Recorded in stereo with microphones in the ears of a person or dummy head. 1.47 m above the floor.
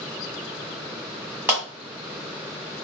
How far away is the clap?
About 1.5 m.